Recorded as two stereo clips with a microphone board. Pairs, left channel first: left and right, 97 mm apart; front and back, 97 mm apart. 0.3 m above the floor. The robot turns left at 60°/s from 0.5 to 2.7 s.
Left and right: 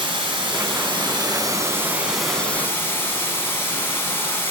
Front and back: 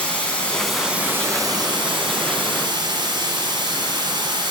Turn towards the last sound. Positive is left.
turn(degrees=150)